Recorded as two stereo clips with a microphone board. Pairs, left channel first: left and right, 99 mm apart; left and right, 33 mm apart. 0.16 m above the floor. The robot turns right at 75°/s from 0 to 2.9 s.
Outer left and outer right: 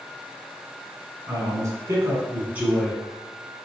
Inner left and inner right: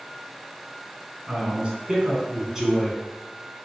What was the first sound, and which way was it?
A man speaking, 130° right.